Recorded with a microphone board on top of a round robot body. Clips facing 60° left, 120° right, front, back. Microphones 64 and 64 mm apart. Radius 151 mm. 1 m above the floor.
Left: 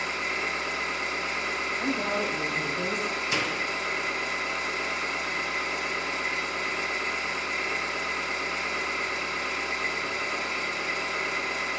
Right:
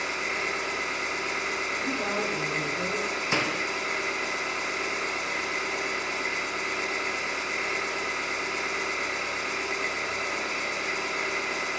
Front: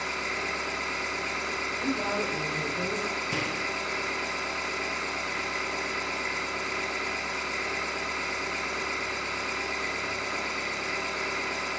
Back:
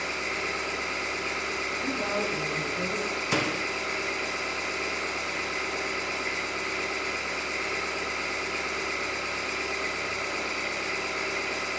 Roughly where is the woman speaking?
Ahead.